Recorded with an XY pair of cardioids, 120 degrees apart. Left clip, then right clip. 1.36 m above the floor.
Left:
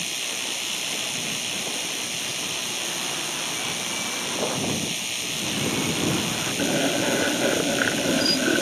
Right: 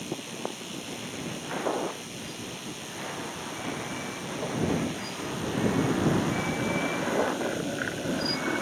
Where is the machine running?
70° left.